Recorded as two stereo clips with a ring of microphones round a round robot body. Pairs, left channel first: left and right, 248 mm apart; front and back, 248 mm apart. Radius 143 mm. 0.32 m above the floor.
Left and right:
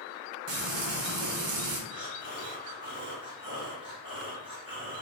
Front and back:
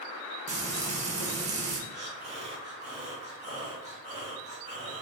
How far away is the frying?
About 1.0 m.